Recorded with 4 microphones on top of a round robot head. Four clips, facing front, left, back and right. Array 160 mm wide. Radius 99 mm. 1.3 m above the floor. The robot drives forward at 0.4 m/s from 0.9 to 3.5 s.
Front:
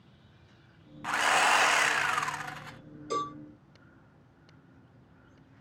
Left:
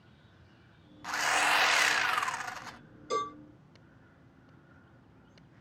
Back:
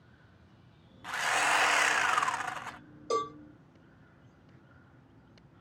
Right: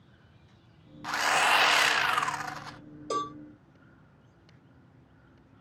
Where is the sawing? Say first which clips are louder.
Right 3 dB, front 4 dB; 25° right, 0.6 m; by 2.8 s 160° right, 0.6 m.